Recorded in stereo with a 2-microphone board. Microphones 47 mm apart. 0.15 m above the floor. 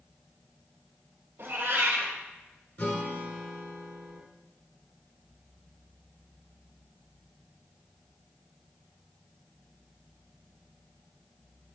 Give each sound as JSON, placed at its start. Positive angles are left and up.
{"t": 1.4, "sound": "a cat meowing", "side_deg": -50, "distance_m": 2.0}
{"t": 2.8, "sound": "a guitar", "side_deg": 45, "distance_m": 2.0}